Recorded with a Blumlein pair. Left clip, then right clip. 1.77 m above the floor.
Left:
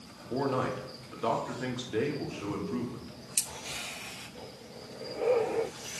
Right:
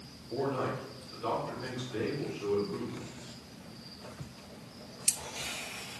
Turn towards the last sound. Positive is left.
turn(degrees=25)